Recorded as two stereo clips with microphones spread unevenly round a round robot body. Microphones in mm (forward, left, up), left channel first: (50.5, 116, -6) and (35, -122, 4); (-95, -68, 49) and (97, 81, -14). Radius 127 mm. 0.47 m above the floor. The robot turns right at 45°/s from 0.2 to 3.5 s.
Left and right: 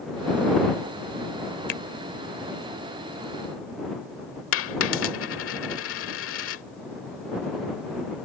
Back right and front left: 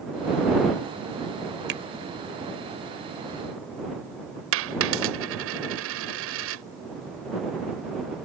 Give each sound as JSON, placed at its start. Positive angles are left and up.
{"t": 1.7, "sound": "a finger snap", "azimuth_deg": 60}
{"t": 4.5, "sound": "a dropped coin", "azimuth_deg": 60}